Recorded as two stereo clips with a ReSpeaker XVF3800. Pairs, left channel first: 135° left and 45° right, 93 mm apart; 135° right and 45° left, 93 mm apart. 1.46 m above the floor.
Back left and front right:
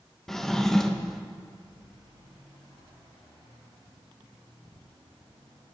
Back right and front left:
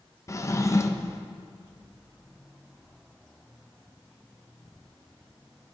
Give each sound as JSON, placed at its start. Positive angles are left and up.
{"t": 0.3, "sound": "a drawer", "azimuth_deg": -145, "distance_m": 0.6}